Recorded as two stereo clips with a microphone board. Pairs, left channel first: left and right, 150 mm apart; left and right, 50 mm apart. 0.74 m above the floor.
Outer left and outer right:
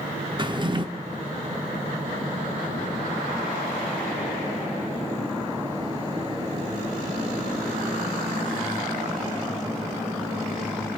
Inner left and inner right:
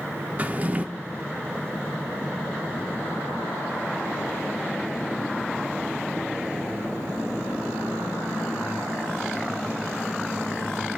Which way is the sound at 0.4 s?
30° right (ahead or behind).